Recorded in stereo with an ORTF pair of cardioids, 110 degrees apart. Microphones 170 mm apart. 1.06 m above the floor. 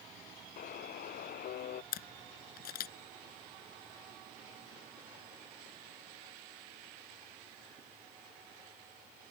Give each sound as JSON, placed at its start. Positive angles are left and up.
{"t": 0.6, "sound": "a buzzer", "azimuth_deg": 60}
{"t": 1.9, "sound": "a camera shutter", "azimuth_deg": 65}